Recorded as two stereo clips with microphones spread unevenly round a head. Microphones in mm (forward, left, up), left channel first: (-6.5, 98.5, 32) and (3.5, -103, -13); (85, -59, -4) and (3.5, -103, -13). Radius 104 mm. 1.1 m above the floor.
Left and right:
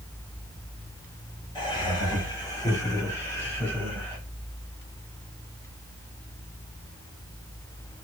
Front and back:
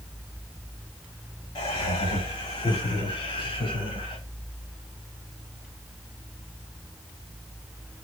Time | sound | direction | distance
1.6 | laughter | 25° left | 7 m